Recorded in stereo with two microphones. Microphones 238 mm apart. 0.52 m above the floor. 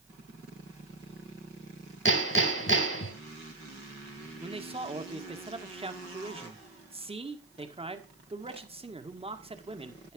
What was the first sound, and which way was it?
Hammering, 60° left (ahead or behind).